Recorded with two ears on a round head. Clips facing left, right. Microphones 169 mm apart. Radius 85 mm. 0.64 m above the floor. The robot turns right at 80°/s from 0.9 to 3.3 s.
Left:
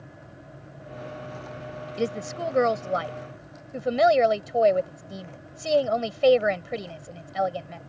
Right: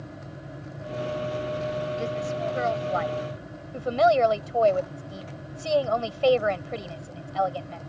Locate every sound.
2.0 s a woman speaking: 50° left; by 7.8 s 155° left